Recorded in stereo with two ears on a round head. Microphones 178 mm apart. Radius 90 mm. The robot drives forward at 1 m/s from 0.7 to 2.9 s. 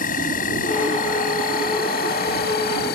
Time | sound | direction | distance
0.0 | an insect | 45° left (ahead or behind) | ?